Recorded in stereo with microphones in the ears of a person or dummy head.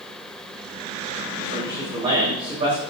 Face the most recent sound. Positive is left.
turn(degrees=-35)  # may be behind; listen again after turning